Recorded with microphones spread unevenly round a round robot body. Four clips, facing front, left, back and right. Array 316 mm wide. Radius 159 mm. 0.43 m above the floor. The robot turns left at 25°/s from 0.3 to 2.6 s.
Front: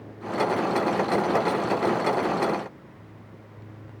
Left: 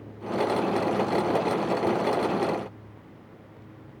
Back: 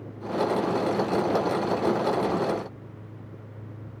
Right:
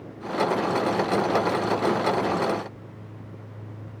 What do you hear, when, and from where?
Only background noise.